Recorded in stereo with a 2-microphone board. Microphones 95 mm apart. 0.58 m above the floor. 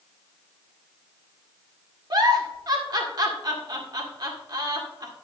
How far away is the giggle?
About 1.7 m.